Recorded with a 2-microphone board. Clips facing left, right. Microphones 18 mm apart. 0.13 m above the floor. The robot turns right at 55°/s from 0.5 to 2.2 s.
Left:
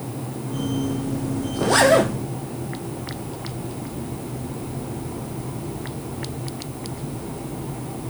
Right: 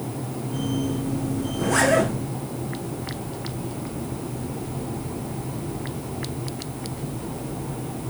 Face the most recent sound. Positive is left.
turn(degrees=75)